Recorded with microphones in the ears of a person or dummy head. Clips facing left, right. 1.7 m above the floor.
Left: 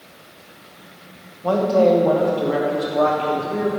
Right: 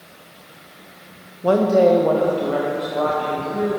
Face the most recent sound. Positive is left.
turn(degrees=40)  # may be behind; listen again after turning